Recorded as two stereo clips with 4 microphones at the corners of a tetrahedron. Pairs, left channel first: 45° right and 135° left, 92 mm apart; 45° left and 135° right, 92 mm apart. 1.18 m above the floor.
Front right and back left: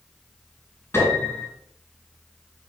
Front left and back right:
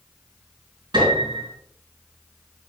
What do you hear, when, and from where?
0.9 s a piano: 110° right, 3.5 m